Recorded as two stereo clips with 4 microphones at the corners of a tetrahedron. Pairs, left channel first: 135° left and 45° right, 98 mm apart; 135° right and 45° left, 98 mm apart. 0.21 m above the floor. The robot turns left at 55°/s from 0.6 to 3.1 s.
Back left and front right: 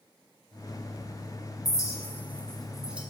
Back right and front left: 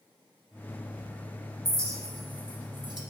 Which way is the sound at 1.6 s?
100° left.